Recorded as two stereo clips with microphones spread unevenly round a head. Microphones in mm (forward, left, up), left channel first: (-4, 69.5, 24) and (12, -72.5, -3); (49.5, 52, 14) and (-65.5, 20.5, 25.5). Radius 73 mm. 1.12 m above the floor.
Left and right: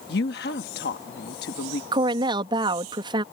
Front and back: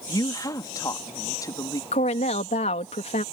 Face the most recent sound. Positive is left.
turn(degrees=-25)